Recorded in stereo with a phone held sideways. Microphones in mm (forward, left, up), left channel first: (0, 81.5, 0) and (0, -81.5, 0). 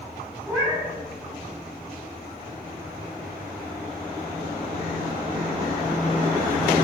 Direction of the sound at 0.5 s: 15° right (ahead or behind).